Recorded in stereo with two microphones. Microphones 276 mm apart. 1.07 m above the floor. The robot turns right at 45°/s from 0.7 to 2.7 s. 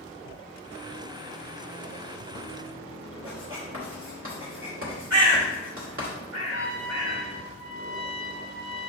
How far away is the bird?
About 1.6 m.